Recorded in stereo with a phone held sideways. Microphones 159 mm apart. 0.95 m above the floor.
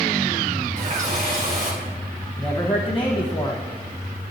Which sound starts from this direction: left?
A man speaking, at 2.4 s.